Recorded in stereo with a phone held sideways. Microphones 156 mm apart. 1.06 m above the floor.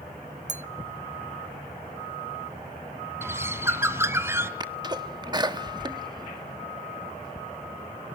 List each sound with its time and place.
0.5 s a clink: 50° right (ahead or behind), 0.5 m
3.2 s a bird: 15° right (ahead or behind), 1.3 m
4.6 s a sneeze: 25° right (ahead or behind), 1.6 m